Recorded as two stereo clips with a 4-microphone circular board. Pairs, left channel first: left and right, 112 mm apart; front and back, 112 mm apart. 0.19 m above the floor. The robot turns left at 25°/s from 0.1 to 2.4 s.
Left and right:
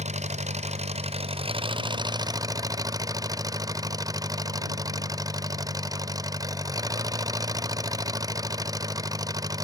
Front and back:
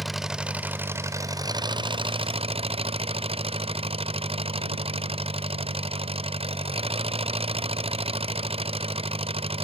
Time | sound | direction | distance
0.0 | an engine running | 90° right | ?